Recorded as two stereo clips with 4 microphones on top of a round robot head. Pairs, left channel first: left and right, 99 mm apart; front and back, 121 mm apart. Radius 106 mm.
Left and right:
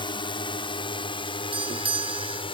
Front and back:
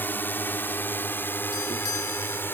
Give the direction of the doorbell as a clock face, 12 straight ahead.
2 o'clock.